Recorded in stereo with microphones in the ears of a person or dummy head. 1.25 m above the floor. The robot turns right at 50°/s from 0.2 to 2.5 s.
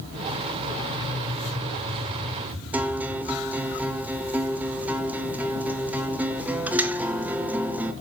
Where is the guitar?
5° right (ahead or behind), 0.6 m.